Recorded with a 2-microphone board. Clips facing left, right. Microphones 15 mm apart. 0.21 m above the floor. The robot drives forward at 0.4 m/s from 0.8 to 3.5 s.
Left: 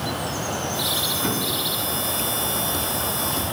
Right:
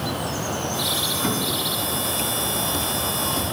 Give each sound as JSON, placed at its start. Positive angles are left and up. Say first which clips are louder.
{"t": 1.2, "sound": "an explosion", "louder": "right 1 dB", "side_deg": -5, "distance_m": 1.9}